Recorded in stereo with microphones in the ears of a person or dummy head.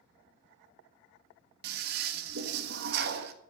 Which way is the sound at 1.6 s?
65° right (ahead or behind).